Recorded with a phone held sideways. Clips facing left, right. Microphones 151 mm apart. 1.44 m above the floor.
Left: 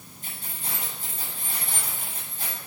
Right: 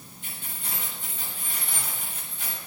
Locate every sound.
0.2 s keys jangling: 45° left (ahead or behind), 7 m